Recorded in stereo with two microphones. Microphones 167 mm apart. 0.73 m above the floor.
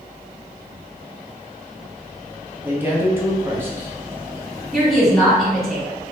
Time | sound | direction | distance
2.6 | a man speaking | 15° right (ahead or behind) | 0.9 m
4.7 | a woman speaking | centre (ahead or behind) | 1.9 m